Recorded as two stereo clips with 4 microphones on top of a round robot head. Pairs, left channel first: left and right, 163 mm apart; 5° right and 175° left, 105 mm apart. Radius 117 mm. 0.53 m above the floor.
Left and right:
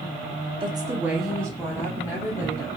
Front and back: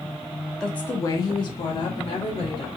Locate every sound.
0.6 s a woman speaking: 85° right, 0.7 m; by 2.7 s 30° left, 1.5 m